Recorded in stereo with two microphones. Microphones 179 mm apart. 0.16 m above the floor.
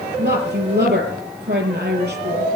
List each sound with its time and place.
0.2 s a woman speaking: 70° right (ahead or behind), 4 m